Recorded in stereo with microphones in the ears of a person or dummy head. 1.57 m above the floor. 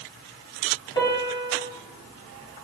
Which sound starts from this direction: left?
A piano, at 0.9 s.